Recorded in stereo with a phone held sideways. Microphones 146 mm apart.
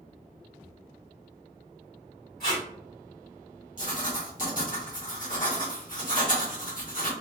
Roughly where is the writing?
Left.